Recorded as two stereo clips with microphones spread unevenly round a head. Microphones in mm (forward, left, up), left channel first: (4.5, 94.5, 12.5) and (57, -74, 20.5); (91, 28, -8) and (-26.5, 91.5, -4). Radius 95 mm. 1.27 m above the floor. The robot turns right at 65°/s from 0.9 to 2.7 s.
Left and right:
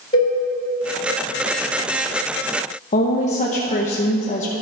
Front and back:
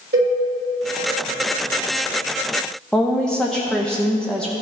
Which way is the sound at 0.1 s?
175° left.